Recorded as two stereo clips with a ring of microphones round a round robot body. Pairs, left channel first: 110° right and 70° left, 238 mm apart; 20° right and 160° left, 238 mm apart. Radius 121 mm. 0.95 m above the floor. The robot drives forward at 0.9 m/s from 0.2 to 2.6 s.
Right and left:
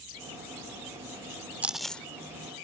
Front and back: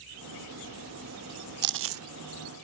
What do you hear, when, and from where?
1.6 s chewing: 150° left; by 2.0 s 165° left